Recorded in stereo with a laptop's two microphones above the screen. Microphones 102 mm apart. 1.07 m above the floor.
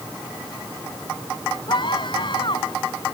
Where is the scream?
55° left (ahead or behind).